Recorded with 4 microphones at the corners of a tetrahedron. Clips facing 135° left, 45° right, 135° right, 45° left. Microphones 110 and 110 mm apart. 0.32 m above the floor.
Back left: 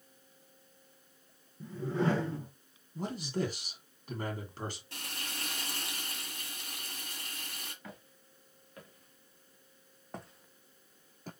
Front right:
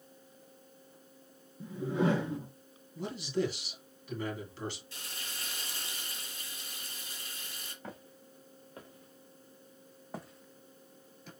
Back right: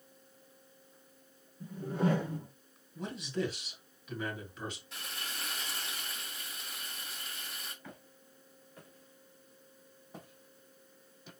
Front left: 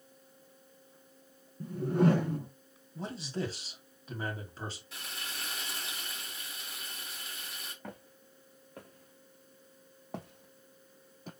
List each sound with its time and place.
1.6 s a whoosh: 30° left, 2 m
3.0 s a man speaking: 100° left, 2.5 m
4.9 s frying: 135° left, 1.6 m
7.8 s footsteps: 10° left, 2.5 m; by 11.3 s 90° left, 0.8 m